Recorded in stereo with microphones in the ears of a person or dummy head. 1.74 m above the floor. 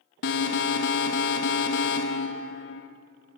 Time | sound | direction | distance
0.2 | an alarm | 60° left (ahead or behind) | 1.6 m